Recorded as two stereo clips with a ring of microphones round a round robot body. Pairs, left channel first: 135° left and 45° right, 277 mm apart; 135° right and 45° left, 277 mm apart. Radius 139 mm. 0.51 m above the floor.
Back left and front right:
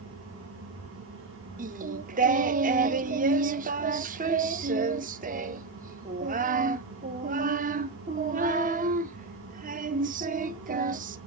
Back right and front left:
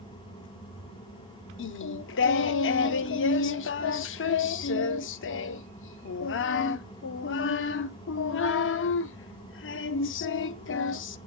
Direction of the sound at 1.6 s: 100° right.